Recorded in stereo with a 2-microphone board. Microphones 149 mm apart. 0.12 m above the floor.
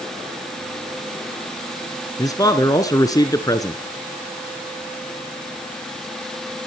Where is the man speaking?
25° left (ahead or behind), 1.5 m.